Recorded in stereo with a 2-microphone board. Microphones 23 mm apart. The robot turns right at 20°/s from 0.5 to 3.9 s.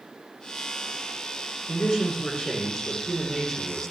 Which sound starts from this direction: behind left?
A man speaking, at 1.7 s.